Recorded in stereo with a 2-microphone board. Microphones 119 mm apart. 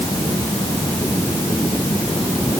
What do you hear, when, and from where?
Only background noise.